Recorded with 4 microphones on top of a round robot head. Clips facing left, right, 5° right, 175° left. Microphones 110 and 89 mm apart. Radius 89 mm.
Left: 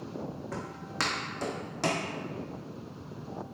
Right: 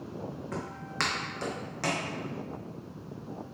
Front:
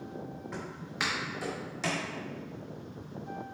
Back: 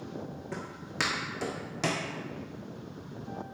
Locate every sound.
0.5 s footsteps: 175° left, 1.4 m; by 2.1 s 145° left, 0.8 m